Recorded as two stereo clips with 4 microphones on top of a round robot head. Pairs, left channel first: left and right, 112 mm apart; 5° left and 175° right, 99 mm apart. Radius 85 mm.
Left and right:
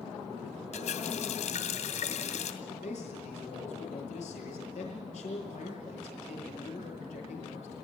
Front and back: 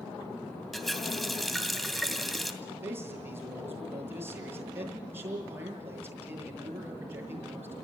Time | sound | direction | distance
0.7 | a running tap | 95° left | 2.5 m
2.6 | a man speaking | 120° left | 8 m